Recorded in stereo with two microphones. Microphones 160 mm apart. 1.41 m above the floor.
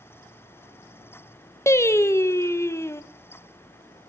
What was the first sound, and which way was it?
Singing, 15° left (ahead or behind).